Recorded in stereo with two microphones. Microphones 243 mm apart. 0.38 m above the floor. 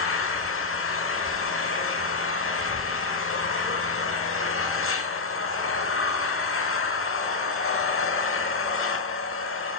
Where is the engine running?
60° left (ahead or behind), 0.8 m.